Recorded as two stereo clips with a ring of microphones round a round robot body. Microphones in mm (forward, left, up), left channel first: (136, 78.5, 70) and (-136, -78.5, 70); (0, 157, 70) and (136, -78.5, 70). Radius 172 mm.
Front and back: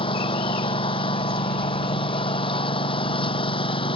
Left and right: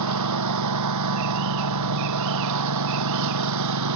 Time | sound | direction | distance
0.0 | a lawn mower | 45° right | ?